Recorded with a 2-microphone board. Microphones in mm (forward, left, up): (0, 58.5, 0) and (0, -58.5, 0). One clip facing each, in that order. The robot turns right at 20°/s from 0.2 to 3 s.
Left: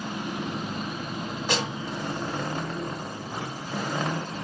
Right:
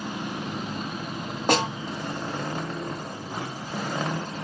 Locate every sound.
1.5 s a snare drum: 55° right (ahead or behind), 1.3 m; by 1.7 s 60° right (ahead or behind), 1.3 m